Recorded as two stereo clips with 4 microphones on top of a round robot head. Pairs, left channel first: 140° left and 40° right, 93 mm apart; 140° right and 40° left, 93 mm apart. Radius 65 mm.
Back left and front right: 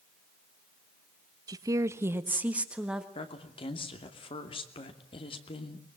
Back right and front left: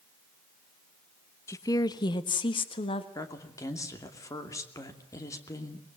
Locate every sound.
1.5 s a woman speaking: 85° right, 1.1 m; by 3.0 s 125° right, 1.7 m
3.1 s a woman speaking: 165° left, 2.5 m